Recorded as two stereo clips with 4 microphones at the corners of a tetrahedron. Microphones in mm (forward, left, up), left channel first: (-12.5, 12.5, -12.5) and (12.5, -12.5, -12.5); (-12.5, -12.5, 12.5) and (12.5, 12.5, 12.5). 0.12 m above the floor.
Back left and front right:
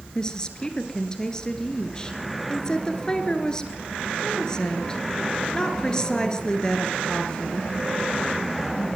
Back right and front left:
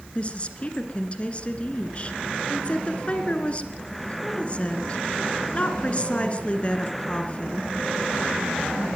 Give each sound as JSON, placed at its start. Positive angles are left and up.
{"t": 0.1, "sound": "a woman speaking", "azimuth_deg": -165, "distance_m": 2.0}